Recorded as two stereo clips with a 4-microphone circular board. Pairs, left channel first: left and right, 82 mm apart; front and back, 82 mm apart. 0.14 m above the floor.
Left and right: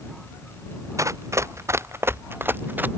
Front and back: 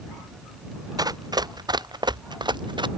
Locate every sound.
1.0 s running footsteps: 140° right; by 2.9 s 155° right